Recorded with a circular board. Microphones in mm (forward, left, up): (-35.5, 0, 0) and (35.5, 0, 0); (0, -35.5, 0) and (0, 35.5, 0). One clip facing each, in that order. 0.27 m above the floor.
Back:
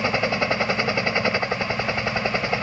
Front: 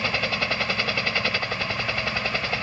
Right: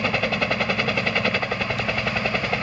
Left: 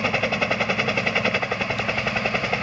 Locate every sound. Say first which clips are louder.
0.0 s a helicopter: back 4 dB, even; 170° left